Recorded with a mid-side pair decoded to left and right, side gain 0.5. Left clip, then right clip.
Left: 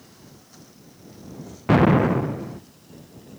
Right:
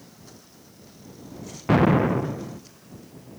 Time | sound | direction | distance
1.7 | an explosion | 15° left | ?